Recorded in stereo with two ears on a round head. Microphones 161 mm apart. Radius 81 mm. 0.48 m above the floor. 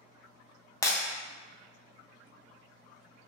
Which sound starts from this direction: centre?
Breaking glass, at 0.8 s.